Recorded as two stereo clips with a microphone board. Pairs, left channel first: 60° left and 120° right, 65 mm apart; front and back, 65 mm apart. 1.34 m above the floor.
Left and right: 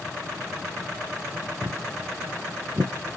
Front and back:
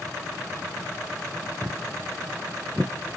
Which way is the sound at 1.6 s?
20° right.